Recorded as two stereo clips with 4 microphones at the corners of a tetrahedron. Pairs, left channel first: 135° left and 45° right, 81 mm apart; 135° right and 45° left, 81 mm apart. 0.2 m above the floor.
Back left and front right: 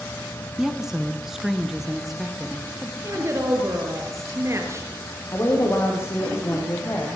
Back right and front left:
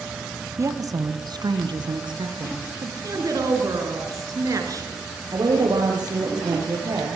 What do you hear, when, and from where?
0.6 s a woman speaking: 35° left, 1.3 m; by 2.9 s 45° left, 4 m
3.0 s a woman speaking: 5° left, 4 m
5.3 s a woman speaking: 80° left, 6 m